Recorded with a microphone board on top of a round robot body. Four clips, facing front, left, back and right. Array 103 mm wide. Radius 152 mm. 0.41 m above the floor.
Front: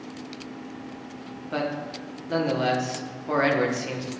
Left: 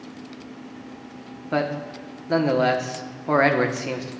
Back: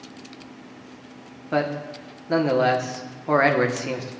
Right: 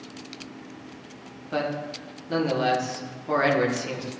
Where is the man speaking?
130° left, 1.2 m.